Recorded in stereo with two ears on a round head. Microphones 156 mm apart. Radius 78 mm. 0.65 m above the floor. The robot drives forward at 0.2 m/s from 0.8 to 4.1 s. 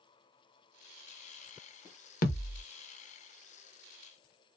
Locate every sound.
2.2 s a thud: 50° left (ahead or behind), 0.6 m; by 2.6 s 60° left (ahead or behind), 0.6 m